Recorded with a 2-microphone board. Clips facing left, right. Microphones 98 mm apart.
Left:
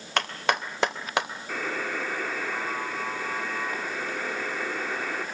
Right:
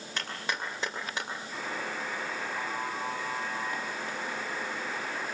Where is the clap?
75° left (ahead or behind), 3 m.